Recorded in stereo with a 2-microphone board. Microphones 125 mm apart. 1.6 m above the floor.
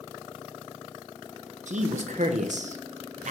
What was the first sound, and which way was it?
A man speaking, 75° right (ahead or behind).